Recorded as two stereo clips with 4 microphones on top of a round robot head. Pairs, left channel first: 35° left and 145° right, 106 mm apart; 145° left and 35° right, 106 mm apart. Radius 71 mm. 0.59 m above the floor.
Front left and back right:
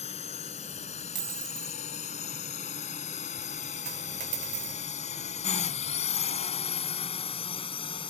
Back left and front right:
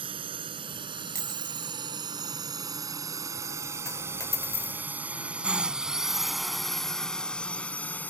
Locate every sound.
0.0 s a drone: 10° left; by 8.1 s 70° left
1.1 s a dropped coin: 95° right
3.9 s a dropped coin: 150° right